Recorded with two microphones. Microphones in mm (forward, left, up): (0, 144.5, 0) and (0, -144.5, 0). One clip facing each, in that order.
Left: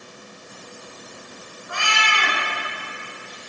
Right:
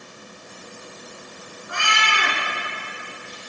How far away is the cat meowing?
About 2.5 m.